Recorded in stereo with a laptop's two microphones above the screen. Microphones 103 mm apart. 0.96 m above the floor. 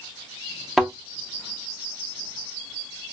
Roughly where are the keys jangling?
No keys jangling in this recording.